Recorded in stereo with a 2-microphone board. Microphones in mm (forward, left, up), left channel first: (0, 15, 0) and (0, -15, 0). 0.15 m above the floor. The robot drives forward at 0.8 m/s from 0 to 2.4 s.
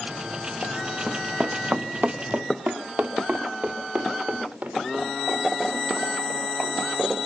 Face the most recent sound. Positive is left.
turn(degrees=-85)